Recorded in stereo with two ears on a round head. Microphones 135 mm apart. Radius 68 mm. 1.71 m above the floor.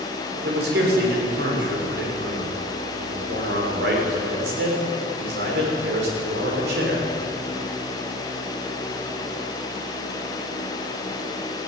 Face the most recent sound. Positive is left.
turn(degrees=-85)